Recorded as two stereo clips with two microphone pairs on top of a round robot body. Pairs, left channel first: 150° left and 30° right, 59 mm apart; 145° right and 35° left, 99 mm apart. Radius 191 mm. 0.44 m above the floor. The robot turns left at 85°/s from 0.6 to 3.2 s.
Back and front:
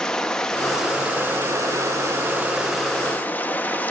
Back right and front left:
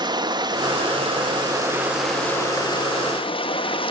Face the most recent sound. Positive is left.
turn(degrees=-150)